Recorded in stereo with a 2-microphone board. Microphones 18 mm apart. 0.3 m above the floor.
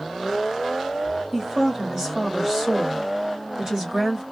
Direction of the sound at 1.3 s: 20° right (ahead or behind).